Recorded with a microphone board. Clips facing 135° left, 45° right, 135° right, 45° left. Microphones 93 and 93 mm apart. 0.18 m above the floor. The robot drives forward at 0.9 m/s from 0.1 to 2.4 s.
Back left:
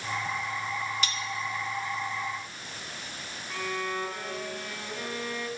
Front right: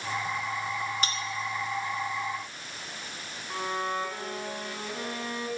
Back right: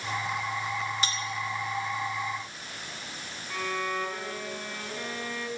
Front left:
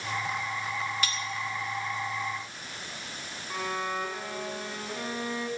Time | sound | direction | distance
1.0 | cutlery clinking | 80° right | 0.9 m
3.5 | a violin | 10° right | 1.9 m